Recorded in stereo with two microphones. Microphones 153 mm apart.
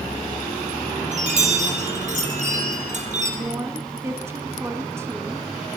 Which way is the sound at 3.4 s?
20° right (ahead or behind).